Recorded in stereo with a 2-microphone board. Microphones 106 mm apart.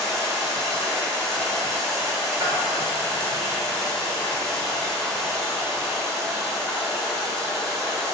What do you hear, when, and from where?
0.0 s running water: 5° left (ahead or behind), 0.9 m
2.4 s a bell: 40° right (ahead or behind), 0.7 m